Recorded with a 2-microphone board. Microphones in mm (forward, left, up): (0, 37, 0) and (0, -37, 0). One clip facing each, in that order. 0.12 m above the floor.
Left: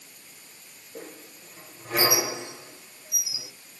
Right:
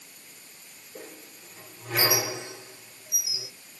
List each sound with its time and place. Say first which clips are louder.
0.9 s a squeak: left 2 dB; 20° left (ahead or behind), 2.5 m